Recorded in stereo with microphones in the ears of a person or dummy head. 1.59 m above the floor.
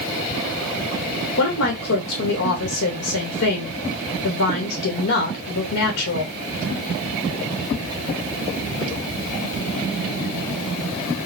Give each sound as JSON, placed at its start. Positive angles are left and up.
{"t": 1.4, "sound": "a woman speaking", "side_deg": 65, "distance_m": 1.3}